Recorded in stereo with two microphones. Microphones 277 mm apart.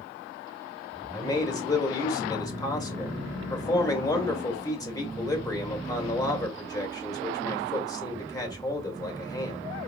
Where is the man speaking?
15° left (ahead or behind), 1.5 m.